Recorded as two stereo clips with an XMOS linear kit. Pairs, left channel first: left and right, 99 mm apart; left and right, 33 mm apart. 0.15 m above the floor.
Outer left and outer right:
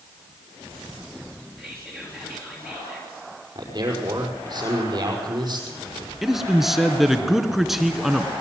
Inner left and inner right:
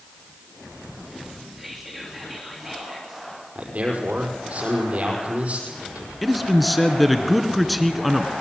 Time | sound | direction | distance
1.6 | whispering | 5° left (ahead or behind) | 3 m
3.5 | a man speaking | 45° right (ahead or behind) | 5.5 m
6.2 | a man speaking | 5° right (ahead or behind) | 1.9 m